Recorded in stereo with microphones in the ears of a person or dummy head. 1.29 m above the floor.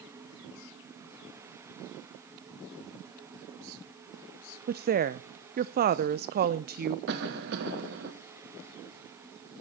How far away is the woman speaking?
About 0.6 m.